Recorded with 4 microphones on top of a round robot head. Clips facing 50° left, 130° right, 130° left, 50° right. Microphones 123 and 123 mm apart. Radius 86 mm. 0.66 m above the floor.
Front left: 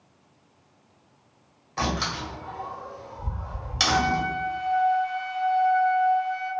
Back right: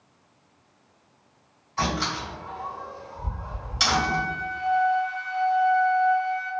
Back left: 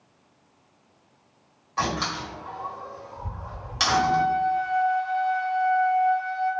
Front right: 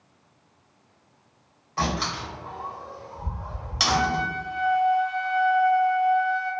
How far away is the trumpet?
About 1.2 m.